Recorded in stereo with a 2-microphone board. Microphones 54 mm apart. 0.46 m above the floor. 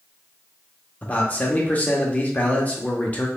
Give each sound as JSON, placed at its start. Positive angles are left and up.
{"t": 1.0, "sound": "a man speaking", "side_deg": 30, "distance_m": 0.8}